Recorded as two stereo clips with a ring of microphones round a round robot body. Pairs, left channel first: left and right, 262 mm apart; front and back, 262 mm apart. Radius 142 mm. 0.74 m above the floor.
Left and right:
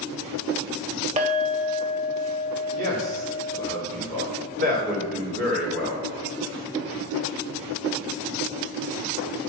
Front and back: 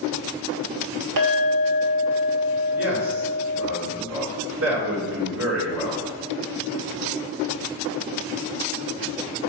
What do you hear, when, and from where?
1.2 s a clink: 155° right, 2 m
2.8 s a man speaking: 140° right, 2.5 m